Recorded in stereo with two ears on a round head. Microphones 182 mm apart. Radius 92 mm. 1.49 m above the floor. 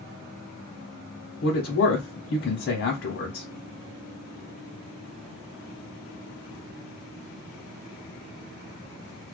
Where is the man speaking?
60° left (ahead or behind), 0.9 m.